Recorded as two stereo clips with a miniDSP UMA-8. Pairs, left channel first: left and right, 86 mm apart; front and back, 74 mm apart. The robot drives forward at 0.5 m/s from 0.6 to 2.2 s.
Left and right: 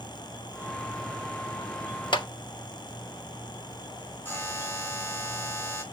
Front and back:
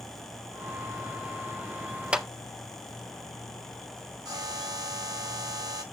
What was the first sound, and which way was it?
A clap, 105° left.